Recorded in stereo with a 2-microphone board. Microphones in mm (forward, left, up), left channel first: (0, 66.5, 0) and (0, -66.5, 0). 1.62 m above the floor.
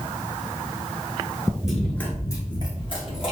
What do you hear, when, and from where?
1.6 s running footsteps: 5° right (ahead or behind), 1.6 m; by 3.3 s 45° left (ahead or behind), 3 m